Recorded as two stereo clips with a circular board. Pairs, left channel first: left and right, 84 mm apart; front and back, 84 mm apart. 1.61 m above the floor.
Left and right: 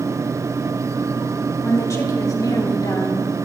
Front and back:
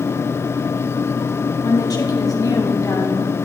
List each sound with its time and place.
1.6 s a woman speaking: 35° left, 3 m; by 3.3 s 50° left, 4.5 m